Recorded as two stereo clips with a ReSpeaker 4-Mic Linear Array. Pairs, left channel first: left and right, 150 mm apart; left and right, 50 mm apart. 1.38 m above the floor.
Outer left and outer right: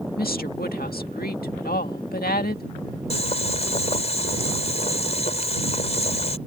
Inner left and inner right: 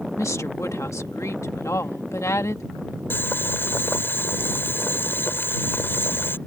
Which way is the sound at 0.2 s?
85° left.